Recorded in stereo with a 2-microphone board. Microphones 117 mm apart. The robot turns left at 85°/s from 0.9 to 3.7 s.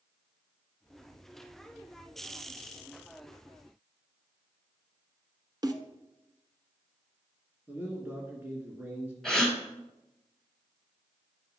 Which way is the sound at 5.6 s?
35° right (ahead or behind).